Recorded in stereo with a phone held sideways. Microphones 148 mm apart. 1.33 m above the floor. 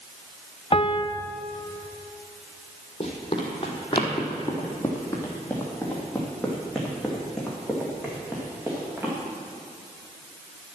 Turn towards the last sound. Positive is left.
turn(degrees=-15)  # may be behind; listen again after turning